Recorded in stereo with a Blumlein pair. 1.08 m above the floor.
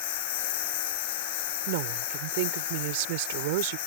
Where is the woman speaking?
50° right.